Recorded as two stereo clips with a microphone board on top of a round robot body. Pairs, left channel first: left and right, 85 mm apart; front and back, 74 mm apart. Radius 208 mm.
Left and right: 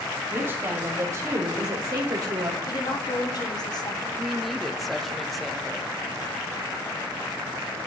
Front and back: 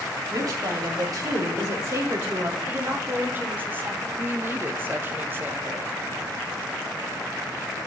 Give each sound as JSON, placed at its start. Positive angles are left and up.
{"t": 0.3, "sound": "a woman speaking", "azimuth_deg": -150, "distance_m": 2.5}
{"t": 2.7, "sound": "a woman speaking", "azimuth_deg": 120, "distance_m": 1.4}
{"t": 4.2, "sound": "a woman speaking", "azimuth_deg": 175, "distance_m": 1.0}